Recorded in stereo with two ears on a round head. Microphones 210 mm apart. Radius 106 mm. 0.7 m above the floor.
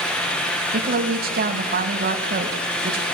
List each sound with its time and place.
0.7 s a woman speaking: 45° right (ahead or behind), 4 m